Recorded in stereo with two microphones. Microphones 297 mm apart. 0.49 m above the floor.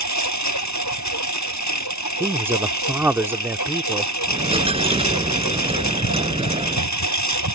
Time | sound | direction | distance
0.0 | a lawn mower | 90° left | ?
2.2 | a man speaking | 10° right (ahead or behind) | ?
4.3 | a dropped coin | 20° right (ahead or behind) | ?